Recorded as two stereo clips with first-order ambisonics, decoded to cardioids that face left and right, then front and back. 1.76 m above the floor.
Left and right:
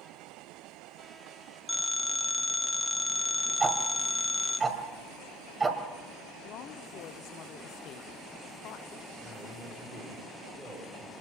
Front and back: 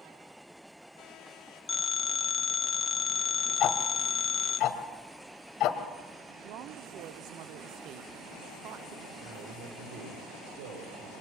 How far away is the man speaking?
About 5.5 m.